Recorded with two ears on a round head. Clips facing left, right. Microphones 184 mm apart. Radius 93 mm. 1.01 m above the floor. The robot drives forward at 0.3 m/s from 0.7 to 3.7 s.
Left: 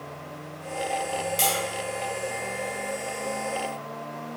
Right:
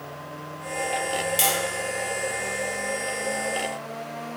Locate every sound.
1.4 s tapping: 10° right (ahead or behind), 1.0 m